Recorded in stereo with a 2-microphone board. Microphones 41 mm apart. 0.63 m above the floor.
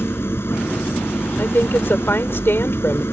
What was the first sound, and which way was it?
An engine running, 75° left (ahead or behind).